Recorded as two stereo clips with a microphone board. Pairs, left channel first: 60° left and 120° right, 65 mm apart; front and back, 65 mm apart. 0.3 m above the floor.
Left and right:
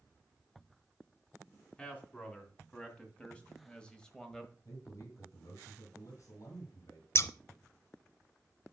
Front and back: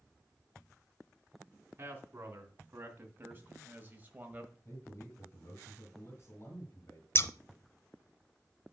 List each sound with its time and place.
1.8 s a man speaking: 125° left, 2.5 m; by 4.5 s 140° left, 1.2 m
4.7 s a man speaking: 45° left, 2.5 m
7.2 s scissors: 35° left, 0.6 m